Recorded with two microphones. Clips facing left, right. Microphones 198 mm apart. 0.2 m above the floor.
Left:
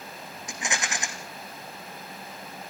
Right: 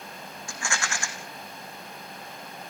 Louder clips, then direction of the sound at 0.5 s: Left 1 dB; 20° left (ahead or behind).